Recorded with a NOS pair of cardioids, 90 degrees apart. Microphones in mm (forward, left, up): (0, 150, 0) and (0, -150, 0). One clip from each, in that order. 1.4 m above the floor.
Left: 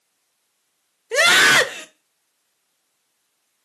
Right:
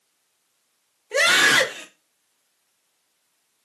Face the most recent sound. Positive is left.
turn(degrees=25)